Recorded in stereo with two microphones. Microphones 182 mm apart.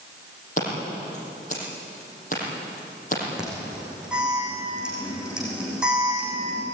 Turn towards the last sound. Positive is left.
turn(degrees=-5)  # may be behind; listen again after turning